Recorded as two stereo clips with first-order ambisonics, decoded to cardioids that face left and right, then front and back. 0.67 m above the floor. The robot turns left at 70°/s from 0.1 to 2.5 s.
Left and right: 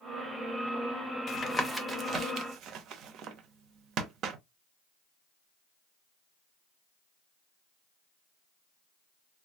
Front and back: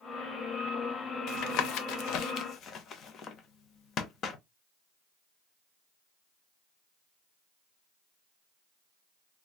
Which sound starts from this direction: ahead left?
Tapping, at 1.3 s.